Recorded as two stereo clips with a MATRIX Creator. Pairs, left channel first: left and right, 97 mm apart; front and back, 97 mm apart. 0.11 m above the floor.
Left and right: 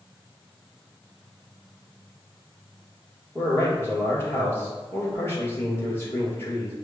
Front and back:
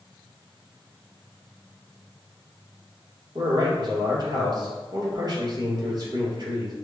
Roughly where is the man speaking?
Behind left.